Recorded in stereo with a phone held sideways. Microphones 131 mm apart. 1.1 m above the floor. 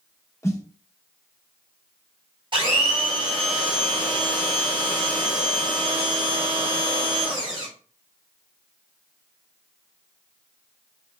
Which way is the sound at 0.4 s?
20° left (ahead or behind).